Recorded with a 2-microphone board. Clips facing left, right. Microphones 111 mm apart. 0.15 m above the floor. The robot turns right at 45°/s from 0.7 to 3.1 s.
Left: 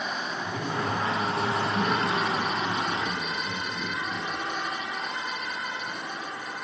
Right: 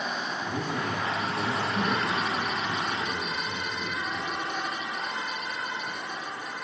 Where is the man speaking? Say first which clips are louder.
Left 1 dB; 35° right, 5 m; by 4.5 s 70° left, 5 m.